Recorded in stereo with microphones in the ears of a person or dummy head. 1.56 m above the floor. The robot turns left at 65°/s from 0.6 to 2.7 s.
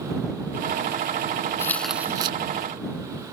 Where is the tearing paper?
20° left; by 2.4 s 30° right.